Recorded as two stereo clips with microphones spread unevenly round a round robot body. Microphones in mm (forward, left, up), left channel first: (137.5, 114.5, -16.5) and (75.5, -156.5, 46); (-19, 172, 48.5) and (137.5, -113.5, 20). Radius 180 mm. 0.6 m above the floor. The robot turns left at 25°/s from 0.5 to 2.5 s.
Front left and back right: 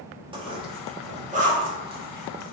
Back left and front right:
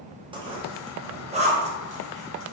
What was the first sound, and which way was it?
A zipper, 20° right.